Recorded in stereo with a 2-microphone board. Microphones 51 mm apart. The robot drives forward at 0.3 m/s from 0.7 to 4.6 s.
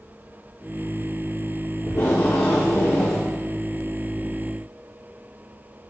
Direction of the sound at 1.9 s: 60° left (ahead or behind).